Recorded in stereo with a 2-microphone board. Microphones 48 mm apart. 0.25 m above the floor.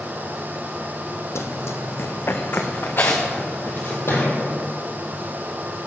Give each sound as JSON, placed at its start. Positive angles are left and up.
{"t": 1.4, "sound": "running footsteps", "side_deg": 70, "distance_m": 0.7}
{"t": 4.1, "sound": "a thud", "side_deg": 70, "distance_m": 3.0}